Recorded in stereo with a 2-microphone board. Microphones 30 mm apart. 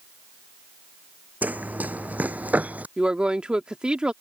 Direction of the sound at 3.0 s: 35° right (ahead or behind).